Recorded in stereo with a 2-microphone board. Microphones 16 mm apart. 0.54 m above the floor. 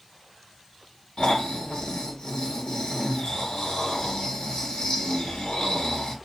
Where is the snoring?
65° left (ahead or behind), 1.8 m.